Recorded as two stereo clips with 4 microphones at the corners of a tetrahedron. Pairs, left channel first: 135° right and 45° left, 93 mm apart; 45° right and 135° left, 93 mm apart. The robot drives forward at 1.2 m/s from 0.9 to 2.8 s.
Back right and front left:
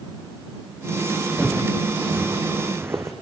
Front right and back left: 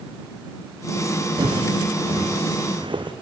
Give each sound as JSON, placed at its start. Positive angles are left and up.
{"t": 1.4, "sound": "footsteps", "azimuth_deg": 120, "distance_m": 1.9}